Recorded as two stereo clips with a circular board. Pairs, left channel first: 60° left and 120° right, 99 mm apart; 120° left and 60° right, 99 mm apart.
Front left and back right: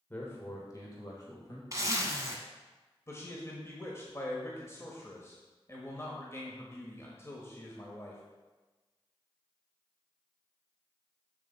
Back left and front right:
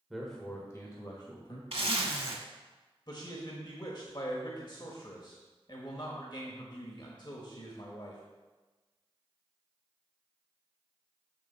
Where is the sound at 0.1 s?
20° left, 1.1 m; by 1.6 s 100° left, 2.0 m.